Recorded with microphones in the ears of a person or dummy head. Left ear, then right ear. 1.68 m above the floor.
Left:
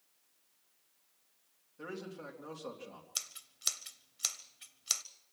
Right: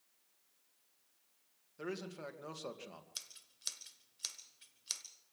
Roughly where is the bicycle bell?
No bicycle bell in this recording.